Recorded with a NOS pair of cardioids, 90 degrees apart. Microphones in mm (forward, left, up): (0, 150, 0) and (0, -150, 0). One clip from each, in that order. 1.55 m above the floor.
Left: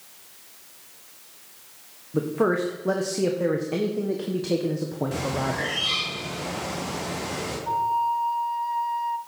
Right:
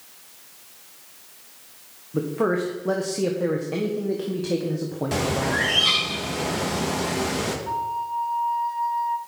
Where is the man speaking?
10° left, 1.4 m.